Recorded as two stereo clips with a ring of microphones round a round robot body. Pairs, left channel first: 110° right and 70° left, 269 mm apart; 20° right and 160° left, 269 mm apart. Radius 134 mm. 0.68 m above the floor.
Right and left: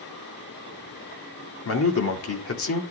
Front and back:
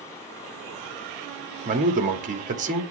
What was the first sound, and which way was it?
A man speaking, 145° right.